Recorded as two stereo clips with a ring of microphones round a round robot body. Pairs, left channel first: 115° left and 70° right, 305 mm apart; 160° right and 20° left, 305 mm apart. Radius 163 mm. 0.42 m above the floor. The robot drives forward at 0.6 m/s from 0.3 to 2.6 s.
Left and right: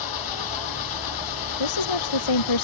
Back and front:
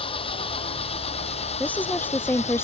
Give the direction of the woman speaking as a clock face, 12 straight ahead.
8 o'clock.